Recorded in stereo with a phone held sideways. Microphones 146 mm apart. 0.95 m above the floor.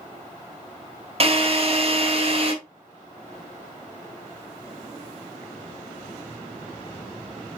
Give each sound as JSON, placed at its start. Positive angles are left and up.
{"t": 1.2, "sound": "a drill", "side_deg": -40, "distance_m": 4.0}